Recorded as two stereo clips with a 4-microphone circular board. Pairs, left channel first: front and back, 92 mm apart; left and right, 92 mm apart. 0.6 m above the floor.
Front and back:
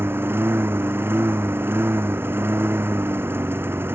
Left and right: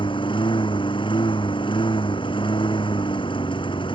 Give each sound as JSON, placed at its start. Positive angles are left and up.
{"t": 0.0, "sound": "a lawn mower", "azimuth_deg": 115}